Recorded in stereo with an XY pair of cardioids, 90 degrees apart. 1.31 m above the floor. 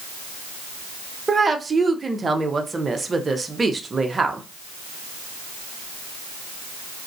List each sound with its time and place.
1.3 s a woman speaking: 30° right, 0.7 m